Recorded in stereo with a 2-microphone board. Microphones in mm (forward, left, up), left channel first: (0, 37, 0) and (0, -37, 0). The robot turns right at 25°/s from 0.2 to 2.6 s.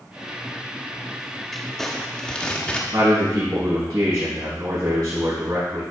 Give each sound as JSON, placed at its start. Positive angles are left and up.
{"t": 1.5, "sound": "crumpling", "side_deg": 5, "distance_m": 1.3}
{"t": 2.9, "sound": "a man speaking", "side_deg": -75, "distance_m": 4.5}